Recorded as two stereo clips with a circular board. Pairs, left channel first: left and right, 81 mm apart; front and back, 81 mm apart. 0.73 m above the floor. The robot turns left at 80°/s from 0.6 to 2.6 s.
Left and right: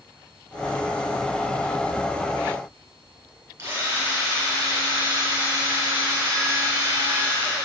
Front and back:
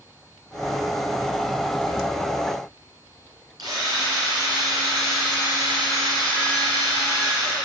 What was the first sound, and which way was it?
A drill, 150° right.